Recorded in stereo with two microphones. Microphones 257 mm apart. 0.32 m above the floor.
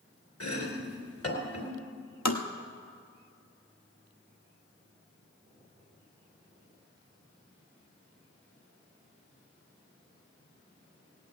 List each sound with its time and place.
0.4 s chopping: 65° left (ahead or behind), 3 m
2.2 s tapping: 85° left, 1.2 m